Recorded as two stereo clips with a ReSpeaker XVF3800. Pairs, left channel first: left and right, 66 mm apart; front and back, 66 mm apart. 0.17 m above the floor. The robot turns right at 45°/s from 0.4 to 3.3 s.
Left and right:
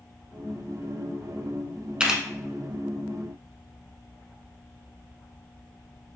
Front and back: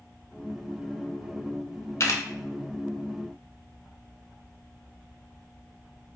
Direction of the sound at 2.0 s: 20° right.